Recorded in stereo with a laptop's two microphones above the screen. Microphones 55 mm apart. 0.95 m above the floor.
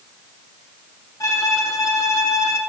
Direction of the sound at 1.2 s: 75° left (ahead or behind).